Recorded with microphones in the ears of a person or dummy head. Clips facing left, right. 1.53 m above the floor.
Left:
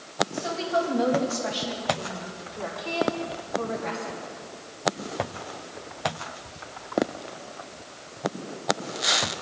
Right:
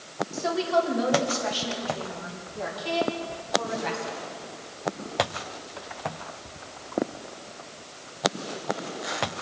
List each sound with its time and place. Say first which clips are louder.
0.3 s a woman speaking: right 5 dB; 80° right, 6 m; by 4.2 s 60° right (ahead or behind), 9 m